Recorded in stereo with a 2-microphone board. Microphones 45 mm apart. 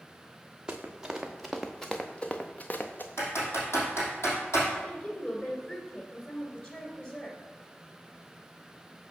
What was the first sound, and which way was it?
Running footsteps, 20° right (ahead or behind).